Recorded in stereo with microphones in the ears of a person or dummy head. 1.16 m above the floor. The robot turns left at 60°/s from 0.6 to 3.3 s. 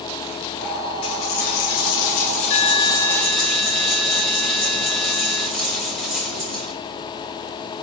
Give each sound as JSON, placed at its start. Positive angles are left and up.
{"t": 1.0, "sound": "a dropped coin", "azimuth_deg": 140, "distance_m": 1.1}